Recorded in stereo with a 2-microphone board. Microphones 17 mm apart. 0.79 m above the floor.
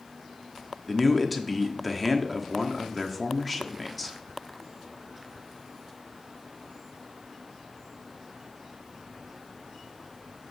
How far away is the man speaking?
About 1.2 m.